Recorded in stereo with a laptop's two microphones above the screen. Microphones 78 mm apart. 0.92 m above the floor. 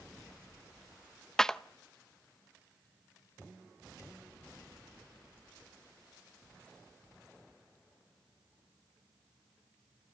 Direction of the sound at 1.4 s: 10° left (ahead or behind).